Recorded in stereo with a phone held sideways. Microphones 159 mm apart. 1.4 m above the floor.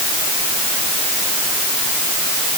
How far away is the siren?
No siren in this recording.